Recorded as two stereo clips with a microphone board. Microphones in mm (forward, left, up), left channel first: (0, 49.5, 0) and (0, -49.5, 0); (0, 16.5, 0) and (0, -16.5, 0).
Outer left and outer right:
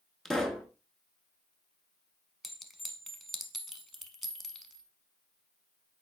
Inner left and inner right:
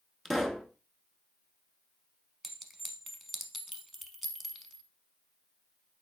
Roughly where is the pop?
Centre.